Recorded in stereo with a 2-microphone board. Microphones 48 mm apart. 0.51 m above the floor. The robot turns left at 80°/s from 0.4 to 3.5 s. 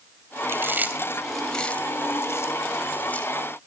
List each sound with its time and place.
0.5 s chewing: 60° right (ahead or behind), 2.5 m; by 3.3 s 25° left (ahead or behind), 2.5 m